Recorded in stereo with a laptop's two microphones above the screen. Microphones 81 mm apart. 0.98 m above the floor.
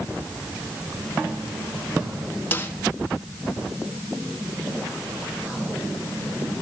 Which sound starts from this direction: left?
A snare drum, at 2.5 s.